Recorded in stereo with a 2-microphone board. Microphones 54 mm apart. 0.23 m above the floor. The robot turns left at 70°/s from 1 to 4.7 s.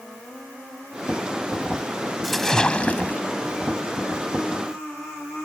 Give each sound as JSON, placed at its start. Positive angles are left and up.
{"t": 2.2, "sound": "a splash", "azimuth_deg": 180}